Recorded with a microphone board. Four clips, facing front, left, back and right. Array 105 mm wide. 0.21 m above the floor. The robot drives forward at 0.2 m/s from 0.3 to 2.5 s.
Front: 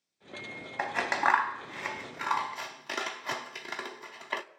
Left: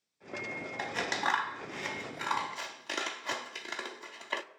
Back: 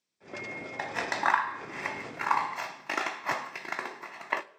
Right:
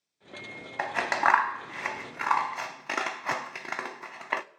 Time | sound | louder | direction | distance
0.8 | scissors | right 8 dB, front 2 dB | 70° right | 0.5 m